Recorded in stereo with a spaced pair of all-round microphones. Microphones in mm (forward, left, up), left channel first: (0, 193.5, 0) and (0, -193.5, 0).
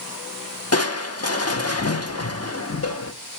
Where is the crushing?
40° left (ahead or behind), 0.8 m.